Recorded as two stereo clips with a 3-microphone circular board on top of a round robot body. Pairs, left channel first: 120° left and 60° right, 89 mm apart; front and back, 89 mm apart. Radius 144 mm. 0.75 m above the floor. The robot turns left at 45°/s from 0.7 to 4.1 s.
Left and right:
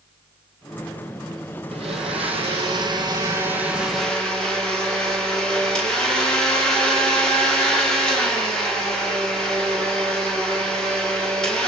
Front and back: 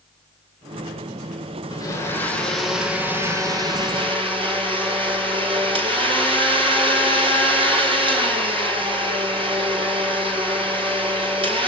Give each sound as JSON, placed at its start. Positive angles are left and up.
{"t": 1.7, "sound": "a blender", "azimuth_deg": -50, "distance_m": 5.0}